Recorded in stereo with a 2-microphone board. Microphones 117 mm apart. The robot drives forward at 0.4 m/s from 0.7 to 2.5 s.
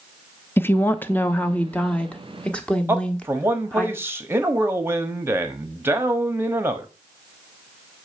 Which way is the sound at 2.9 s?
20° right (ahead or behind).